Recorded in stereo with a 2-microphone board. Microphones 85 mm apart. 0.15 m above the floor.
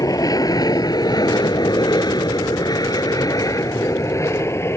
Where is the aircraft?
45° left (ahead or behind); by 4.8 s 30° left (ahead or behind).